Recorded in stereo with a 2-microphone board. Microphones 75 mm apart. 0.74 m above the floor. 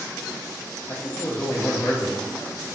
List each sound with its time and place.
0.9 s a man speaking: 30° left (ahead or behind), 0.5 m